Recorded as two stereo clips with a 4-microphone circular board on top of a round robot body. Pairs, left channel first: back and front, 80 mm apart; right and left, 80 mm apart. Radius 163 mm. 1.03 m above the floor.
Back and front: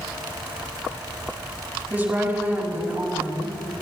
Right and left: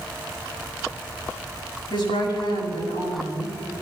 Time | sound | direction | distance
1.9 | a woman speaking | 70° right | 6 m